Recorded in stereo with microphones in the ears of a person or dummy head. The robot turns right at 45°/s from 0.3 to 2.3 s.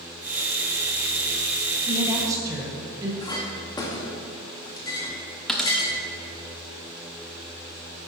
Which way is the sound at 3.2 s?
20° left (ahead or behind).